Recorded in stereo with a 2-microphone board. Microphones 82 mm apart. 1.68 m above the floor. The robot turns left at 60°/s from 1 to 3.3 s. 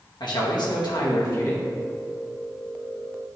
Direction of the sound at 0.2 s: 70° left.